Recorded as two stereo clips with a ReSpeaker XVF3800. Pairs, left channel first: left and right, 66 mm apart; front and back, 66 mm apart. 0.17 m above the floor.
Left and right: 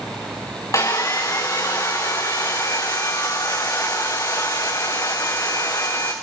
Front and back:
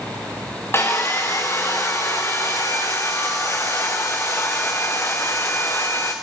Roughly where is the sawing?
Ahead left.